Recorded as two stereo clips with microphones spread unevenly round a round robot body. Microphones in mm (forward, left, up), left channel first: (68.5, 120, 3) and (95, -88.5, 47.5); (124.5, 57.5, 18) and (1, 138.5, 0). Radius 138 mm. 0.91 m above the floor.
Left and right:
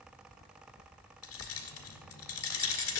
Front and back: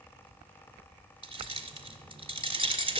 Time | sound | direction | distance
1.2 | keys jangling | 90° left | 1.8 m